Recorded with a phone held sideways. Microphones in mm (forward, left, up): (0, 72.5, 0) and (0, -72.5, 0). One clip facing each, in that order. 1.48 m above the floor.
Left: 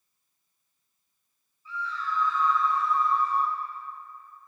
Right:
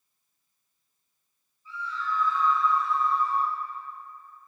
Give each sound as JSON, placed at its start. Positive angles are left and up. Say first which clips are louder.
{"t": 1.6, "sound": "a scream", "louder": "even", "side_deg": 80, "distance_m": 1.2}